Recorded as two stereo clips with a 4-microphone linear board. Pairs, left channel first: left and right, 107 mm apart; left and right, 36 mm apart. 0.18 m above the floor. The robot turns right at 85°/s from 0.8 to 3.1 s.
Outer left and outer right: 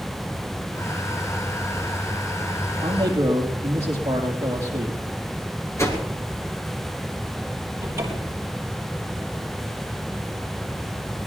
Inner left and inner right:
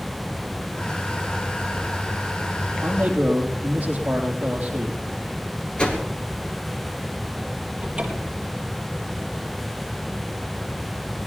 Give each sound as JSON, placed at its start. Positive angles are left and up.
{"t": 2.8, "sound": "a man speaking", "side_deg": -60, "distance_m": 4.5}
{"t": 5.8, "sound": "a whoosh", "side_deg": 25, "distance_m": 3.0}
{"t": 7.8, "sound": "a cupboard door", "side_deg": -30, "distance_m": 3.5}